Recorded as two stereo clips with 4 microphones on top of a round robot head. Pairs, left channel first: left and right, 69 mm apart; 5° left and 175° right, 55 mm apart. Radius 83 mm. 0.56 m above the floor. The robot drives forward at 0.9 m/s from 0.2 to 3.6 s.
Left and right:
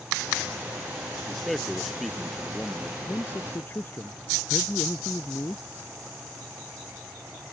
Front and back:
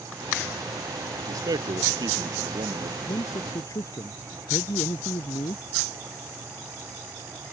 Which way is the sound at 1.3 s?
Straight behind.